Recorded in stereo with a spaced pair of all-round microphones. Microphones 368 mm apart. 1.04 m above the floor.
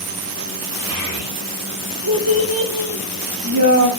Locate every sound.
0.9 s a child speaking: 35° right (ahead or behind), 3 m; by 3.9 s 45° right (ahead or behind), 2 m